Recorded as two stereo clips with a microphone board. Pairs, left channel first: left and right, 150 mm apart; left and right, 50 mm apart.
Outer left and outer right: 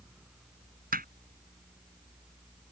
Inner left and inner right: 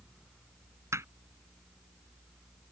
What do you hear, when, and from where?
0.9 s hammering: 80° right